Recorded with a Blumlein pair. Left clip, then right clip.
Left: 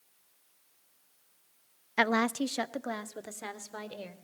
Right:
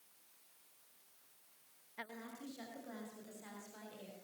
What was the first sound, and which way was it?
A woman speaking, 40° left.